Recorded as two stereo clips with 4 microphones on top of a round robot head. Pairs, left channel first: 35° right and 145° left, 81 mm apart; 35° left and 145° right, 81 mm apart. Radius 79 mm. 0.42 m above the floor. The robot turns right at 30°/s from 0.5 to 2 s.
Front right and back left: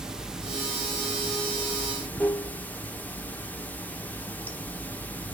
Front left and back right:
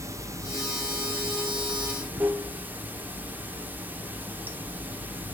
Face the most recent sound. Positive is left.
turn(degrees=-90)